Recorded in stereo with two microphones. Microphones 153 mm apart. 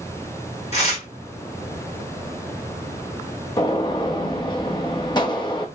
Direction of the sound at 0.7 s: 45° left (ahead or behind).